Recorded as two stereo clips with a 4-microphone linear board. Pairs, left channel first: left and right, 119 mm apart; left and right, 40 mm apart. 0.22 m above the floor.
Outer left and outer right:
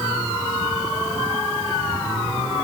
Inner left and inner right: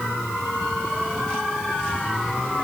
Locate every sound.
Only background noise.